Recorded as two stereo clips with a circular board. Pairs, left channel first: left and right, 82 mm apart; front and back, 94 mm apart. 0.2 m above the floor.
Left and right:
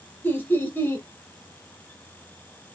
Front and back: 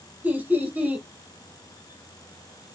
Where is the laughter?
125° left, 1.1 m.